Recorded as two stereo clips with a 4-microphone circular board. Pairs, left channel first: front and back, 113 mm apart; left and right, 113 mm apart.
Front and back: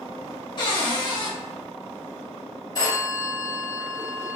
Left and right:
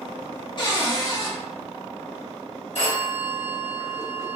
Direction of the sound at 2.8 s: 60° left.